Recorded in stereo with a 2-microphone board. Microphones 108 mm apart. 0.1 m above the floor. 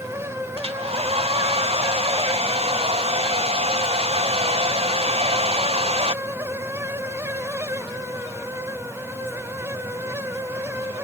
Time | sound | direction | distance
0.6 | a hair dryer | 60° right (ahead or behind) | ?